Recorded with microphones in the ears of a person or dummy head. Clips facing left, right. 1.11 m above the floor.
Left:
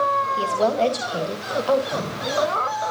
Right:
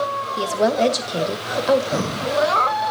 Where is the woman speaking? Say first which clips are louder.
Right 3 dB; 20° right (ahead or behind), 1.3 m.